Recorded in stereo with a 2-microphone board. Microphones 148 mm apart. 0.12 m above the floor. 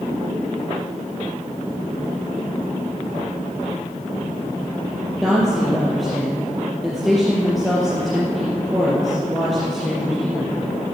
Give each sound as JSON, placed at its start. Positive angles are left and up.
{"t": 5.2, "sound": "a woman speaking", "side_deg": 0, "distance_m": 3.0}